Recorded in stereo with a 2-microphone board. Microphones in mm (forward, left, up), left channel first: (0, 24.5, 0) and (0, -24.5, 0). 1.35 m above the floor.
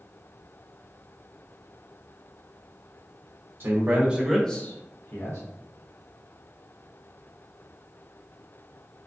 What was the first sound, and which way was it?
A man speaking, 45° right (ahead or behind).